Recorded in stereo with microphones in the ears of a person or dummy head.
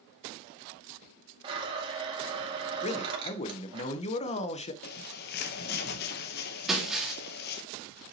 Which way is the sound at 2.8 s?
40° left (ahead or behind).